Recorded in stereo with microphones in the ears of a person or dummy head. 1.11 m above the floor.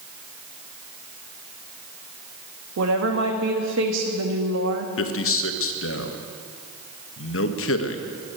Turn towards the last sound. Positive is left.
turn(degrees=70)  # may be behind; listen again after turning